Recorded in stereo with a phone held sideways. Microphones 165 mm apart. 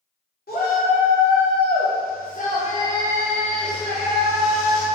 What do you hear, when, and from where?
0.5 s a shout: 70° left (ahead or behind), 1.2 m; by 4.8 s 10° right (ahead or behind), 1.3 m